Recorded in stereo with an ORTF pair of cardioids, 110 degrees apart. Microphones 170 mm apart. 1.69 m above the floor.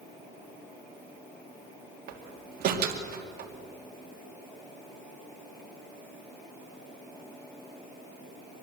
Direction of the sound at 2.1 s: 65° right.